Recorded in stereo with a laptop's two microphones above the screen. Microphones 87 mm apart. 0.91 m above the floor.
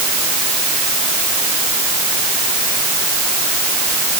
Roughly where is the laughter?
I don't hear laughter.